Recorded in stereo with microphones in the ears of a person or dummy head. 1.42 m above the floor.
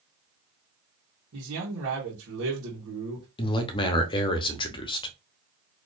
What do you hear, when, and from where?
1.3 s a man speaking: 70° right (ahead or behind), 1.2 m
3.4 s a man speaking: 25° left (ahead or behind), 0.8 m